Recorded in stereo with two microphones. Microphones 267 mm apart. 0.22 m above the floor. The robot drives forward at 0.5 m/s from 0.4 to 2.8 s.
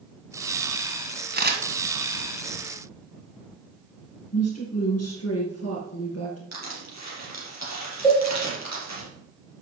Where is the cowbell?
10° left (ahead or behind), 3 m.